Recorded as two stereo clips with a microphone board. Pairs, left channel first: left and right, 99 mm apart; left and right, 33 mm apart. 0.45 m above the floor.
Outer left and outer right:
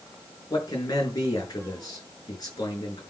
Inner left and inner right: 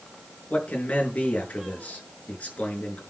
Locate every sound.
0.5 s a man speaking: 40° left (ahead or behind), 5 m